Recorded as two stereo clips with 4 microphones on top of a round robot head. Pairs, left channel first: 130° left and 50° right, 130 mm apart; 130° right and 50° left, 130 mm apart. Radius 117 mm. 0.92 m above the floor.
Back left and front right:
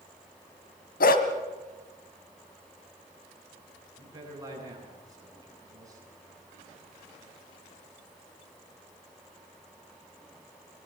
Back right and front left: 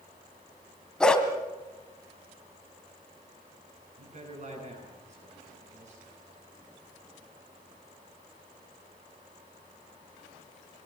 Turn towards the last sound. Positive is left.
turn(degrees=15)